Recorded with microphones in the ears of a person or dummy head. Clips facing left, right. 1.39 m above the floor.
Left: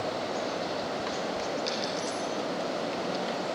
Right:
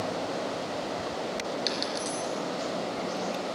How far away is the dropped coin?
About 3 m.